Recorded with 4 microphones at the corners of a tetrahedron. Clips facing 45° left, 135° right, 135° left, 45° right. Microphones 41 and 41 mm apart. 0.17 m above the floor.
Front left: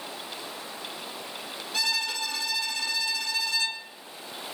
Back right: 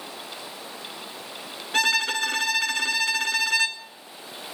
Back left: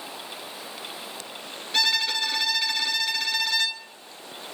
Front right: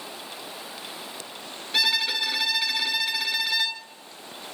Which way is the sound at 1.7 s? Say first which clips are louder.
Back right 7 dB, even; 125° right.